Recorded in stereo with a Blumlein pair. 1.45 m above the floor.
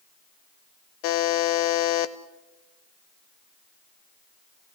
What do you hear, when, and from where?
1.0 s a buzzer: 45° left, 0.9 m